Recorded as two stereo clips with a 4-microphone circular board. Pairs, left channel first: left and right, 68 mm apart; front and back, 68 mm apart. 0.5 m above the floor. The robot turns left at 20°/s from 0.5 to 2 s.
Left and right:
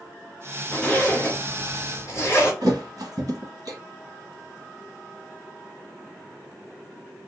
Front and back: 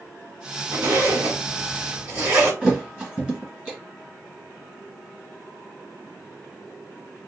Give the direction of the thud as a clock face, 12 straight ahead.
4 o'clock.